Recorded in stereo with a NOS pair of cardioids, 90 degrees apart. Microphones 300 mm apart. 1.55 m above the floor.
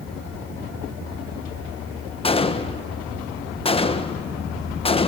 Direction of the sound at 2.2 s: 20° left.